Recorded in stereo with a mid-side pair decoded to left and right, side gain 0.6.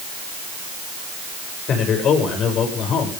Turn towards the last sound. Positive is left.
turn(degrees=50)